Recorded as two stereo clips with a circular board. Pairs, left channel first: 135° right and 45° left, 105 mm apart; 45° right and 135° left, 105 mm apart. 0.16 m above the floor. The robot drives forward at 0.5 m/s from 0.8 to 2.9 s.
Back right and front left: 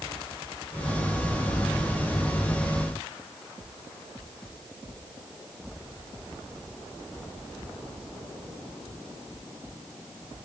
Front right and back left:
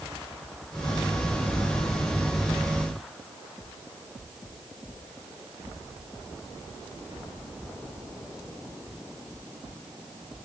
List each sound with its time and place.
Only background noise.